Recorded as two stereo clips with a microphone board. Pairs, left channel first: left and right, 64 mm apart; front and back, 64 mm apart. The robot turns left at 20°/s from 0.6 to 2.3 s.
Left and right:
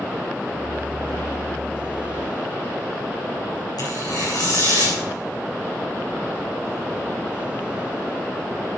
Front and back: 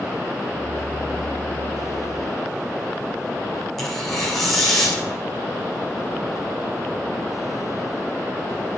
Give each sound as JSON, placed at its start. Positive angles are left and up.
{"t": 3.8, "sound": "tearing paper", "azimuth_deg": 85, "distance_m": 7.0}